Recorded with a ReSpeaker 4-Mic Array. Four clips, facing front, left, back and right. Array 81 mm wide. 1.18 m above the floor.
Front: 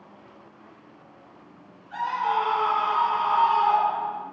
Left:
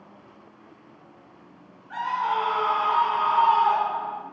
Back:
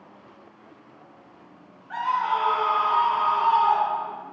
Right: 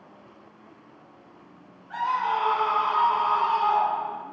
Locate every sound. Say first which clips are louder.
1.9 s a scream: even, back 1 dB; 165° left, 1.5 m; by 4.2 s 45° left, 1.6 m